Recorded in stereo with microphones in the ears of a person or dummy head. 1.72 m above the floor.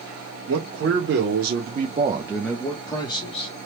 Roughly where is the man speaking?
Right.